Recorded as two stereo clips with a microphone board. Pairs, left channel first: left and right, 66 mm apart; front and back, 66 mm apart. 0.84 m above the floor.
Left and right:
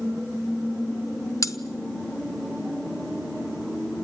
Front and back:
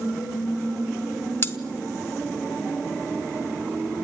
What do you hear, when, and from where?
1.4 s cutlery clinking: 50° left, 1.2 m